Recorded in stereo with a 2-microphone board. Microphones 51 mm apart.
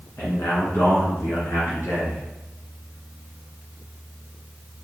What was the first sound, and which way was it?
A man speaking, 55° left (ahead or behind).